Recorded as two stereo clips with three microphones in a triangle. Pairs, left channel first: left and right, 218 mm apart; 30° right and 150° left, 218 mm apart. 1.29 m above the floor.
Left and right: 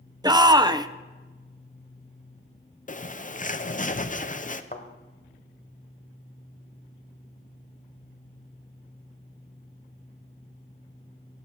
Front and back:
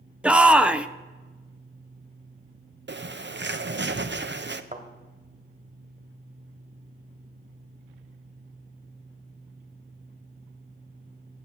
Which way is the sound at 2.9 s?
135° left.